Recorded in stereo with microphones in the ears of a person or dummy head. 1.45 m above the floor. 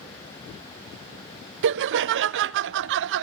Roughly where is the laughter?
Right.